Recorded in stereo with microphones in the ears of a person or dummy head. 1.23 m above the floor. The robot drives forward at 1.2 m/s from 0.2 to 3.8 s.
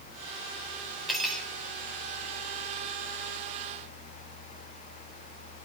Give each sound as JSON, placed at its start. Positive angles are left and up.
{"t": 1.1, "sound": "cutlery clinking", "side_deg": 5, "distance_m": 3.5}